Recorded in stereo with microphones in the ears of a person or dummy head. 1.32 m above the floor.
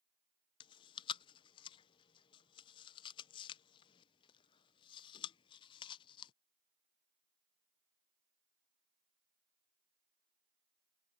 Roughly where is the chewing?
Left.